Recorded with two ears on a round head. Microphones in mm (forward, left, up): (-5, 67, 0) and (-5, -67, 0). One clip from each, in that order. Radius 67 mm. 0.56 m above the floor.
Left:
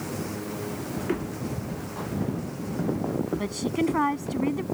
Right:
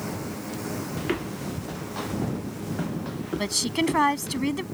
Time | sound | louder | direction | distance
1.0 | footsteps | even | 60° right (ahead or behind) | ?
3.4 | a woman speaking | right 2 dB | 80° right | ?